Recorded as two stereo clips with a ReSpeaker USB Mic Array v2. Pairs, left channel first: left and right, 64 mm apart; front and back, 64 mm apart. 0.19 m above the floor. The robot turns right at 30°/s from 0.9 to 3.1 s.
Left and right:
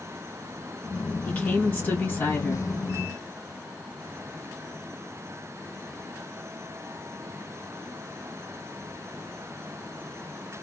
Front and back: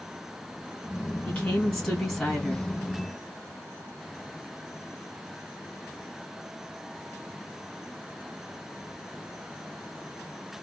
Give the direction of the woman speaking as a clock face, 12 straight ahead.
10 o'clock.